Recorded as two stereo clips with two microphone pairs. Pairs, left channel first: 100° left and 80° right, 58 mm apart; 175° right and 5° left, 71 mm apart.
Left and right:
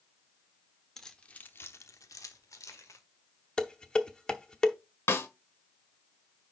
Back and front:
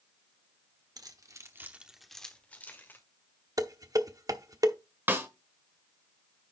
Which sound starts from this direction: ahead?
Keys jangling, at 1.0 s.